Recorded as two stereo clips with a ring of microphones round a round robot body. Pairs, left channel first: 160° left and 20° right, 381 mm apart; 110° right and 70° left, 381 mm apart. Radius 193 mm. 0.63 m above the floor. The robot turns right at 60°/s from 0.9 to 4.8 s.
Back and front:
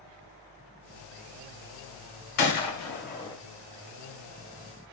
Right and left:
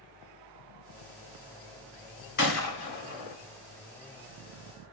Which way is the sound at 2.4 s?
175° right.